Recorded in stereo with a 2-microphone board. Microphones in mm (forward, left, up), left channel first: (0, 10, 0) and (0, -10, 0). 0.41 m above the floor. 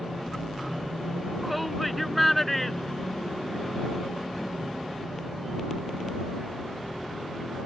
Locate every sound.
1.4 s a shout: centre (ahead or behind); by 3.9 s 30° left (ahead or behind)